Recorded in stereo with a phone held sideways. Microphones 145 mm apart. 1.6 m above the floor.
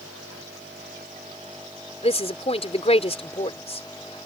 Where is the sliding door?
I don't hear a sliding door.